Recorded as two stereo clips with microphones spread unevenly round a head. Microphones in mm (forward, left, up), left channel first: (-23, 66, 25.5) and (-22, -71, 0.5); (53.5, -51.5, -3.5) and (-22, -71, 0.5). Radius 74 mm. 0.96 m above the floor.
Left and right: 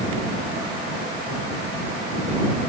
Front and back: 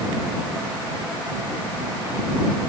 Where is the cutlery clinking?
No cutlery clinking in this recording.